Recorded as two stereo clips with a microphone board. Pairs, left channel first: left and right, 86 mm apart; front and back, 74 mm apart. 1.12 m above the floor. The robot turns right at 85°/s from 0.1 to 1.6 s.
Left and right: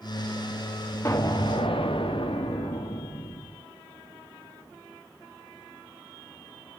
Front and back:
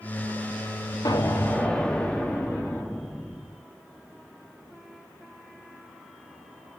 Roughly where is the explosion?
Ahead left.